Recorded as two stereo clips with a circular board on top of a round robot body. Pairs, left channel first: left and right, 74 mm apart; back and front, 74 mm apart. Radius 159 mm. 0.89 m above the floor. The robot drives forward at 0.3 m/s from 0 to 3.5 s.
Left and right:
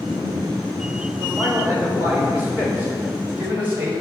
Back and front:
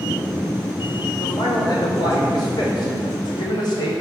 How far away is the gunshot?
No gunshot in this recording.